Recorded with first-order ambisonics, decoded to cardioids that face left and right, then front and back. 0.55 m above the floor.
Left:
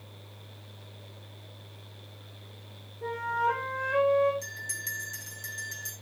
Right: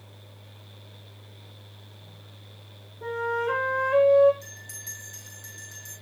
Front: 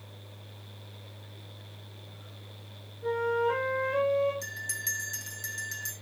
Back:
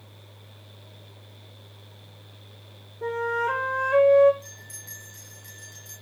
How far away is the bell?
About 6 m.